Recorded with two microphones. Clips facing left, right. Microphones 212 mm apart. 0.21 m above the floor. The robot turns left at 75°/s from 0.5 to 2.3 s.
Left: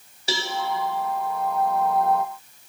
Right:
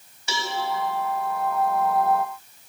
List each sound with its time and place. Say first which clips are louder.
0.3 s a cowbell: left 2 dB; 35° left (ahead or behind), 0.8 m